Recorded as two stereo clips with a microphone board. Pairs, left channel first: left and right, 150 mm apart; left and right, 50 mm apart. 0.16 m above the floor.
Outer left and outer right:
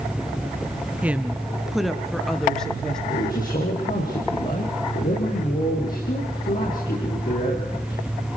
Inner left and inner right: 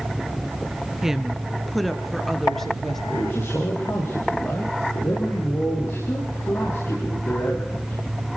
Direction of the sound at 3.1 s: 60° left (ahead or behind).